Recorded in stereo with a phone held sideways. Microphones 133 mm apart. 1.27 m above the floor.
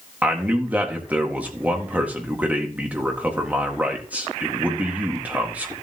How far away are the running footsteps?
No running footsteps in this recording.